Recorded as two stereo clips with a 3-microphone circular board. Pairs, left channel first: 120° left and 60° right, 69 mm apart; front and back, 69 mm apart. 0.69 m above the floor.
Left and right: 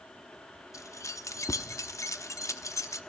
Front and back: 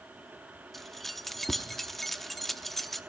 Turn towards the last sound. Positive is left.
turn(degrees=85)